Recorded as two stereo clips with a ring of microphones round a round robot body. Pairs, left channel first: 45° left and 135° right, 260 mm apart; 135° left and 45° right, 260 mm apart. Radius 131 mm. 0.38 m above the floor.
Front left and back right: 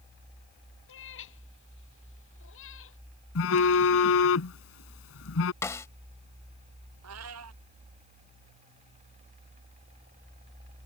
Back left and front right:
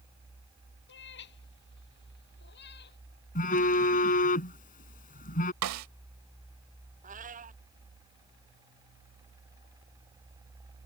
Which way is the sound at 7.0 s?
105° right.